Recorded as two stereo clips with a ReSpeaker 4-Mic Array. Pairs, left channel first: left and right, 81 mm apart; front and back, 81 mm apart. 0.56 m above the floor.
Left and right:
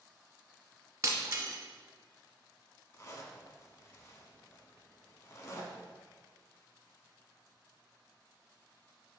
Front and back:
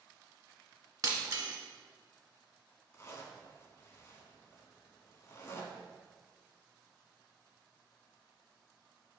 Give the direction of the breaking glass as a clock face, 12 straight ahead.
5 o'clock.